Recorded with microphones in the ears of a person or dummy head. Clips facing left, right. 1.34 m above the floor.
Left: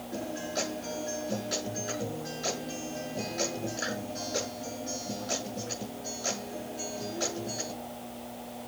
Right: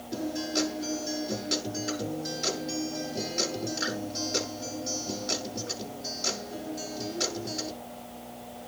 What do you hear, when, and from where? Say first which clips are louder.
0.1 s a guitar: right 5 dB; 40° right (ahead or behind), 8.5 m